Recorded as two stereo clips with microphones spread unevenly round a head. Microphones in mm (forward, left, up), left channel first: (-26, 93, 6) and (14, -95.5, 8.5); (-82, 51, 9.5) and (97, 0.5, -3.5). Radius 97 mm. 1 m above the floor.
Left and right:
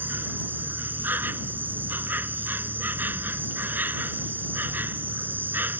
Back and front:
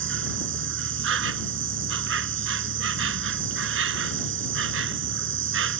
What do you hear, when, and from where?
0.0 s an insect: 5° left